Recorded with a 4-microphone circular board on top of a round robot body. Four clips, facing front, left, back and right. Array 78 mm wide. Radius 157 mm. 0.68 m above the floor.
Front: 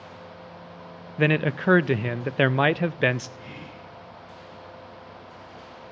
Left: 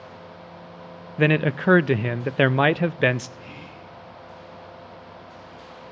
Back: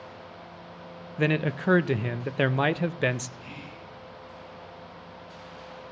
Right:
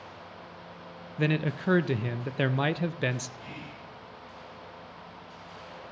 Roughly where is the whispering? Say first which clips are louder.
Left 2 dB, front 1 dB; ahead.